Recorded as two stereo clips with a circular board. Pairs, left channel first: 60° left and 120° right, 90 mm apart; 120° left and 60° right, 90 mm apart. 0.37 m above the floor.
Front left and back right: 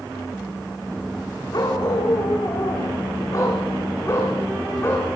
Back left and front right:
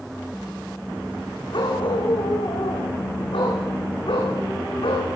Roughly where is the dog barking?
Left.